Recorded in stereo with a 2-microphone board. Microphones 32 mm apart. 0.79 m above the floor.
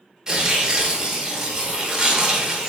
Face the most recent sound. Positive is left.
turn(degrees=-25)  # may be behind; listen again after turning